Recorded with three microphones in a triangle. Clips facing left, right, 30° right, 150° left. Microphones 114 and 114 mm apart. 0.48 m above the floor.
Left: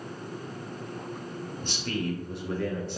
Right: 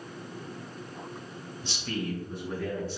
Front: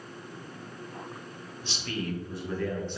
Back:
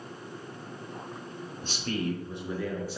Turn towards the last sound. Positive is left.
turn(degrees=65)